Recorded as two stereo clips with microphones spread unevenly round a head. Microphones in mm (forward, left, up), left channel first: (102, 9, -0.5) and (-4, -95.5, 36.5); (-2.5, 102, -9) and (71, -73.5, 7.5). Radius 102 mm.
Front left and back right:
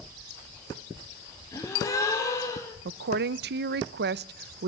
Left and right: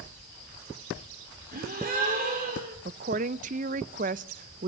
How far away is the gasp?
About 4.5 m.